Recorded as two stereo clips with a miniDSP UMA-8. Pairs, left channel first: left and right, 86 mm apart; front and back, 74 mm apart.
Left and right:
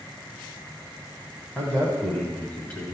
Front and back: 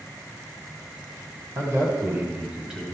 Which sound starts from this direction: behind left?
A man speaking, at 1.6 s.